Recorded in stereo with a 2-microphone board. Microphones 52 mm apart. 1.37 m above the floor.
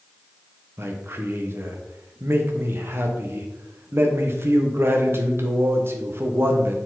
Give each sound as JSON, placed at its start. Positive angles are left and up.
{"t": 0.8, "sound": "a man speaking", "side_deg": -50, "distance_m": 0.9}